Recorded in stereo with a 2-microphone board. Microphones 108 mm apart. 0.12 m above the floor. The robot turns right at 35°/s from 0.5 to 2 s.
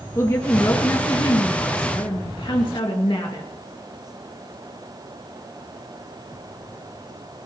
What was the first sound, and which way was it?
A woman speaking, 35° left.